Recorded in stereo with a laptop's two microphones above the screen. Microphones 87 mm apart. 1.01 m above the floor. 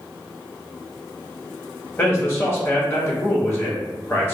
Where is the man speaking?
30° left (ahead or behind), 1.9 m.